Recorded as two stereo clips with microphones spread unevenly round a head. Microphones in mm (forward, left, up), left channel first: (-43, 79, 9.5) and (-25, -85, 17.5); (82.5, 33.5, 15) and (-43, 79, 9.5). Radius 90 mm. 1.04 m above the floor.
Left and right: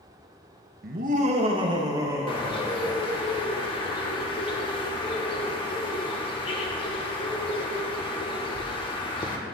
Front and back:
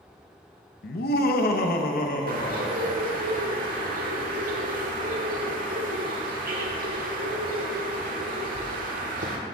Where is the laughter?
45° right, 0.6 m; by 3.1 s straight ahead, 1.6 m.